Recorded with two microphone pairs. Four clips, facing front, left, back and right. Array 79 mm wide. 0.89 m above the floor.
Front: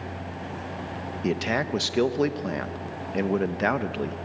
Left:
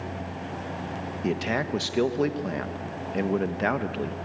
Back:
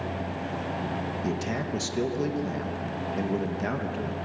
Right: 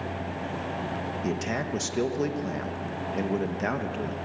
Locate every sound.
1.2 s a man speaking: 25° left, 1.1 m